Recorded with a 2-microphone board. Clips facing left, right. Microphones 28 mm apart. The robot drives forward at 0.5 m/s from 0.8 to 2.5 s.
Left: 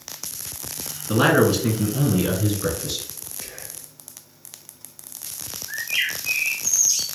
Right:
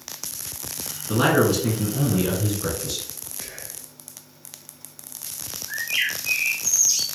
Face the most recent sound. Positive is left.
turn(degrees=-20)  # may be behind; listen again after turning